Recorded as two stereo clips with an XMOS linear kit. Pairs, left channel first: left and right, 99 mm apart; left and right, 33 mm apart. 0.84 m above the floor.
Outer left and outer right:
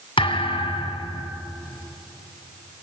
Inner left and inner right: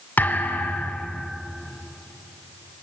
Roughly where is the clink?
No clink in this recording.